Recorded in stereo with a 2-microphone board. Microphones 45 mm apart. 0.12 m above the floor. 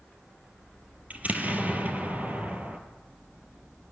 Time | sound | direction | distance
1.1 | an explosion | 35° right (ahead or behind) | 2 m